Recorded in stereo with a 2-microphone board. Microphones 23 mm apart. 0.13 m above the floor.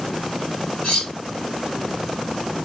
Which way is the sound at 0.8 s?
50° left (ahead or behind).